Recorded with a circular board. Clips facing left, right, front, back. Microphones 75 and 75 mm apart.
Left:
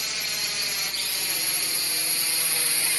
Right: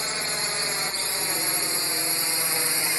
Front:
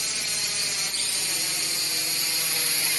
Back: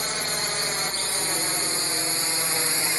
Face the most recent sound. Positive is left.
turn(degrees=-140)